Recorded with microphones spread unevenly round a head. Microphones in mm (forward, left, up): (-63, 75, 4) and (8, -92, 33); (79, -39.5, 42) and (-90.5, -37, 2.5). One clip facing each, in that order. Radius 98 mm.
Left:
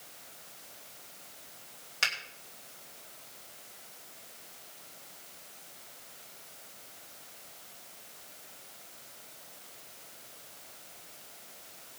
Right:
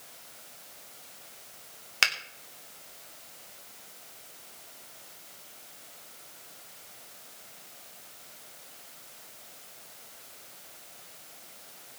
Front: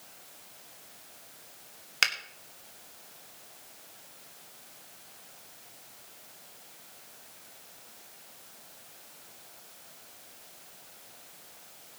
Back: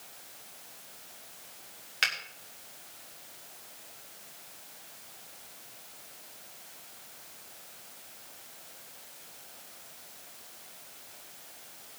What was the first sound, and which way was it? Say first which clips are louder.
A finger snap: right 4 dB, front 1 dB; 35° right.